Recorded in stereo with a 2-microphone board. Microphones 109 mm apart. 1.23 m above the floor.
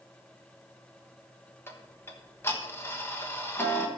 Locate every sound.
1.7 s ticking: 20° left (ahead or behind), 1.2 m